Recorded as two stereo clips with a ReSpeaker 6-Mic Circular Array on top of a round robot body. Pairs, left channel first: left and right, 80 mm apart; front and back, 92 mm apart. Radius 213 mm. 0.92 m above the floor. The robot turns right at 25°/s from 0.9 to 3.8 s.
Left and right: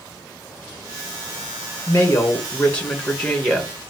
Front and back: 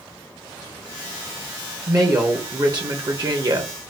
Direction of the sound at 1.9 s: 135° left.